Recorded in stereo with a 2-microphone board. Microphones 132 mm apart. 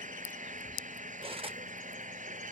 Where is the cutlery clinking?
45° right (ahead or behind).